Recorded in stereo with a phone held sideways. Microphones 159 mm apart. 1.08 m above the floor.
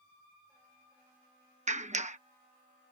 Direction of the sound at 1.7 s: 50° right (ahead or behind).